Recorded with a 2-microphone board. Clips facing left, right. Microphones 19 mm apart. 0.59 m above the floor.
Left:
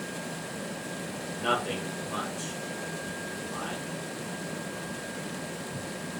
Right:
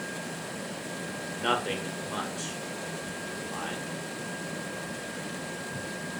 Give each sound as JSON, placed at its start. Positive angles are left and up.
{"t": 1.4, "sound": "a man speaking", "side_deg": -20, "distance_m": 0.7}